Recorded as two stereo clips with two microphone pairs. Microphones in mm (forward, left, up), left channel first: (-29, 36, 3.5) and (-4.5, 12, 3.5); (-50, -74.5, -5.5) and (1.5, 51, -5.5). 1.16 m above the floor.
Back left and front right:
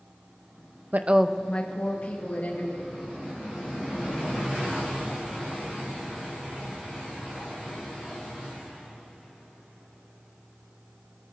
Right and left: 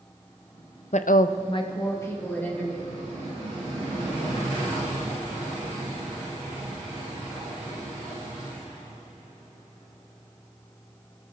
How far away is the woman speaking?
About 0.6 m.